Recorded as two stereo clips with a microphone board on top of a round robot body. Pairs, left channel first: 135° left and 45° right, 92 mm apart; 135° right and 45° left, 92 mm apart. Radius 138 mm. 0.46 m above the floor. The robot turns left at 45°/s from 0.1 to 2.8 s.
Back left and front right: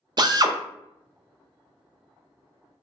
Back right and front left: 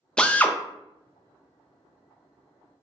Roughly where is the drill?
Ahead right.